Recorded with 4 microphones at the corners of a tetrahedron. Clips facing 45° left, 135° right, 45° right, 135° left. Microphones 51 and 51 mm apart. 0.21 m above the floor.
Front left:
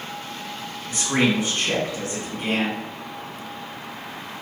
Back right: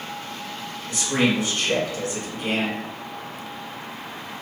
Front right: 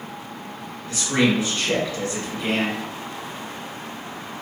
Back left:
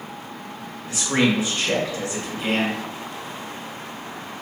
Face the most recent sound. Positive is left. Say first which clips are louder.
# front left 1 dB, even
turn(degrees=70)